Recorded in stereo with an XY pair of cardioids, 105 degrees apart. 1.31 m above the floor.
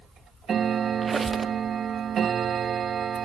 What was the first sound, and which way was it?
A squeak, 30° right.